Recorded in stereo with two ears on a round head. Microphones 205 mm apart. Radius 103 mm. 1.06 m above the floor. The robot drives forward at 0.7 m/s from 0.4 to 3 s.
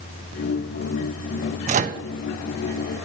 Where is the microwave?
30° right (ahead or behind), 0.6 m; by 2.0 s 35° right (ahead or behind), 0.5 m.